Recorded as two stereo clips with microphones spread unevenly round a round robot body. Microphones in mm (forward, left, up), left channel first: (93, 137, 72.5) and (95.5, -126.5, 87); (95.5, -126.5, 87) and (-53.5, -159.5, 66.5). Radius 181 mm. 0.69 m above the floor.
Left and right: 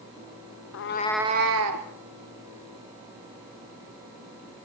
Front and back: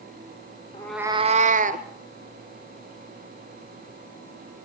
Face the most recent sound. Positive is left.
turn(degrees=-130)